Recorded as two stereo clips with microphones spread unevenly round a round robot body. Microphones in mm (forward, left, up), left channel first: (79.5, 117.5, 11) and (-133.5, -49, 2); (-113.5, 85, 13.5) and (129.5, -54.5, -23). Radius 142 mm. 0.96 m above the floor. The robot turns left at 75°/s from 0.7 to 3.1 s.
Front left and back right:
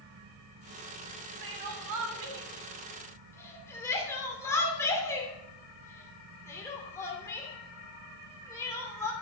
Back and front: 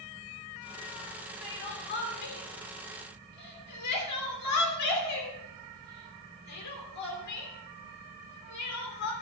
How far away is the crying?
About 3 m.